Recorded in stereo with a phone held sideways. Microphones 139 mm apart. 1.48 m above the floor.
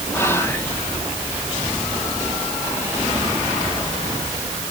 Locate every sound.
0.1 s whispering: 20° left (ahead or behind), 2 m